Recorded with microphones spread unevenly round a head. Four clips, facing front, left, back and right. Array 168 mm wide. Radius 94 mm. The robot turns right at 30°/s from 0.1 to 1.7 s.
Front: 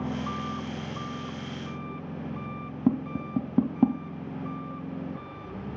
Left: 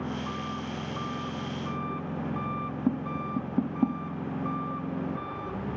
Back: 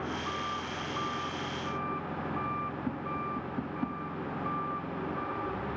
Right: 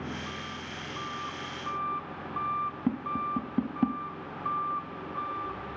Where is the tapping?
10° left.